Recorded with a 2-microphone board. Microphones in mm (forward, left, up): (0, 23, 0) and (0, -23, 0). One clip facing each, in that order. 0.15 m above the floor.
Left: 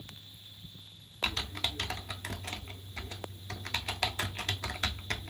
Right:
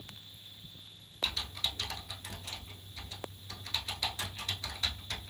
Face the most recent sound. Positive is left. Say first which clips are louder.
# left 2 dB
turn(degrees=60)  # may be behind; listen again after turning